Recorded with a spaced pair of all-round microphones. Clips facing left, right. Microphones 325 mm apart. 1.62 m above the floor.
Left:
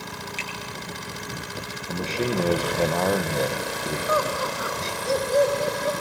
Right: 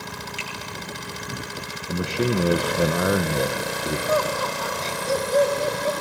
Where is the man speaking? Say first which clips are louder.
Right 3 dB; 15° right (ahead or behind), 1.2 m.